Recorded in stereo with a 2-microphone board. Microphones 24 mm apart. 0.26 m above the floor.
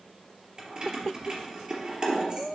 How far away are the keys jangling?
About 3 m.